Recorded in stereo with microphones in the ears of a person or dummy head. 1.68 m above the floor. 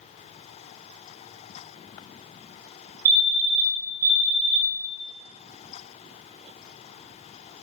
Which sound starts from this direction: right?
A fire alarm, at 3.0 s.